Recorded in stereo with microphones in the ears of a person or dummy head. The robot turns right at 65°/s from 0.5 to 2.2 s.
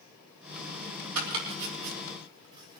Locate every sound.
1.1 s chopping: 85° right, 3.5 m; by 2.8 s 25° right (ahead or behind), 3.5 m